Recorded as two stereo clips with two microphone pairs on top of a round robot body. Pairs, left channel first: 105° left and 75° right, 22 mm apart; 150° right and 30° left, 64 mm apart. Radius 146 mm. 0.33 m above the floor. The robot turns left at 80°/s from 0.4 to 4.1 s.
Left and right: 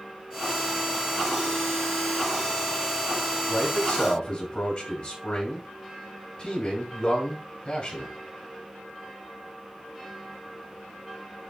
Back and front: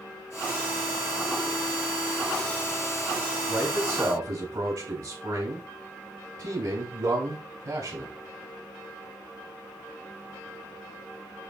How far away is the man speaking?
About 5 m.